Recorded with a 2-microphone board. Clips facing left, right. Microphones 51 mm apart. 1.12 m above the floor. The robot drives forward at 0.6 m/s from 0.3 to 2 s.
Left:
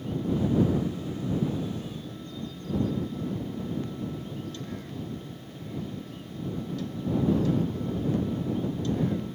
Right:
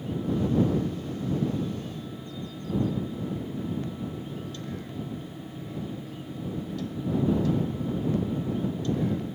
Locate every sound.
Only background noise.